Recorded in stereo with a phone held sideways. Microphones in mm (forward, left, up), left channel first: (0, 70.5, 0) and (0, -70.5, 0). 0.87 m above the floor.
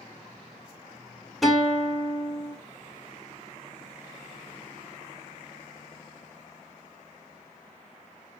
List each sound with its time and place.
1.4 s a guitar: centre (ahead or behind), 0.6 m